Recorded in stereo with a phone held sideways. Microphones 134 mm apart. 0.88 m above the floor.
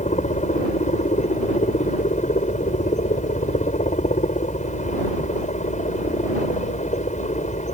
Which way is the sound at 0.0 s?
60° left (ahead or behind).